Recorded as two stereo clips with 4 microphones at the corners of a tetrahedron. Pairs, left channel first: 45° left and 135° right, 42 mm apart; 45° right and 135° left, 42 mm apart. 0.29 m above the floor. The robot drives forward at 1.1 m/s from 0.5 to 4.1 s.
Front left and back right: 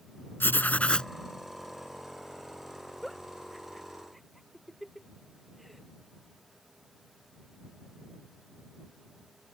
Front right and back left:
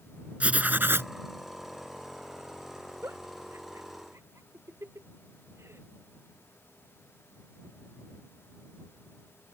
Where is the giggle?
130° left; by 5.8 s 135° left.